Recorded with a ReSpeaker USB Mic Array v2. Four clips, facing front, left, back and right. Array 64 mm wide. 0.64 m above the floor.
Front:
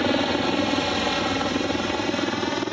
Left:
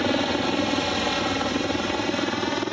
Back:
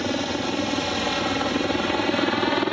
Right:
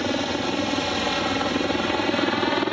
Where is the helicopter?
25° left; by 2.7 s 135° right.